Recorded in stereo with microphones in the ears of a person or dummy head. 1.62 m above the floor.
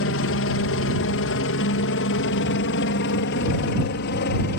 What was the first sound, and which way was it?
A helicopter, 60° left (ahead or behind).